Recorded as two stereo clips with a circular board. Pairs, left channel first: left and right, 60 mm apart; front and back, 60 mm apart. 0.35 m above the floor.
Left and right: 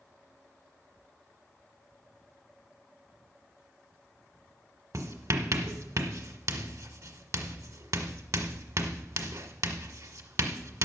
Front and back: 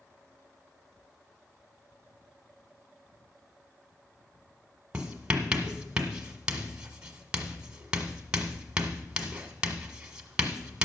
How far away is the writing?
About 1.3 m.